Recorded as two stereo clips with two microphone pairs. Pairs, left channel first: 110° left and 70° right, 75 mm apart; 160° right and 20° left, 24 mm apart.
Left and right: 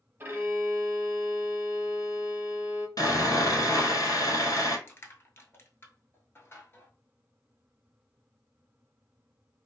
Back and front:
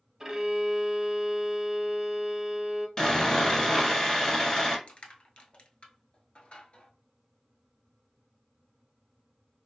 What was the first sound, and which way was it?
A violin, 45° right.